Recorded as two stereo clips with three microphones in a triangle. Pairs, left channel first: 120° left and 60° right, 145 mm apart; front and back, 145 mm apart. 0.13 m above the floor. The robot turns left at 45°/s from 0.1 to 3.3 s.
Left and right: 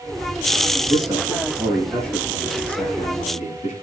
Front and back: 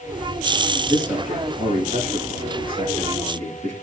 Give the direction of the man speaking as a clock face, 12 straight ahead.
4 o'clock.